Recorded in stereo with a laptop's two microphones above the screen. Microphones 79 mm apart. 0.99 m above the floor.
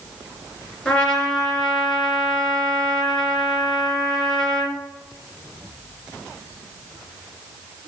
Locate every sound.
0.8 s a trumpet: 10° left (ahead or behind), 3 m